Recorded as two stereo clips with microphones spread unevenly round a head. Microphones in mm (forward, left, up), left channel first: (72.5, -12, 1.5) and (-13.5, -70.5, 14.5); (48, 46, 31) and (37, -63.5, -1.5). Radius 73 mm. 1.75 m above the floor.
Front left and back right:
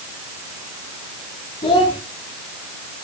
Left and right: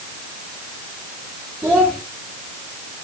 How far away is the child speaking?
About 1.4 m.